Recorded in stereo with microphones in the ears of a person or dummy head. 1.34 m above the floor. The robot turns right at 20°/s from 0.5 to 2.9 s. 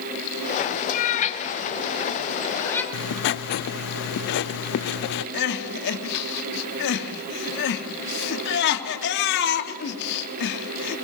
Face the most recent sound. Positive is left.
turn(degrees=60)  # may be behind; listen again after turning